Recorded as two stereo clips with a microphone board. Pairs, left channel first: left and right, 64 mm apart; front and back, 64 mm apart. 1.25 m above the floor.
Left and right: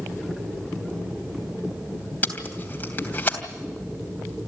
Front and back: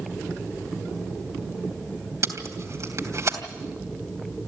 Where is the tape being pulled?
150° left, 3 m.